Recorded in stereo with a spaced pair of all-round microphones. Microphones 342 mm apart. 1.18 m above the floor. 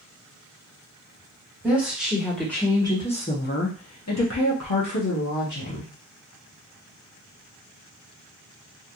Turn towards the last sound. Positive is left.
turn(degrees=50)  # may be behind; listen again after turning